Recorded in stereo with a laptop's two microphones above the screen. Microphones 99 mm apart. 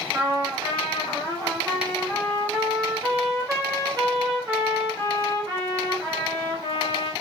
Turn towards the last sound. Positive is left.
turn(degrees=-35)  # may be behind; listen again after turning